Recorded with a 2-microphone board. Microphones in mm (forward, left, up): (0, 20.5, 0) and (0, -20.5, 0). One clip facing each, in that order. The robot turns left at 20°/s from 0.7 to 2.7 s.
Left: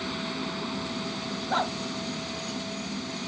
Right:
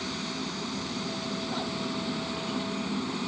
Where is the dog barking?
45° left (ahead or behind); by 1.8 s 40° left (ahead or behind).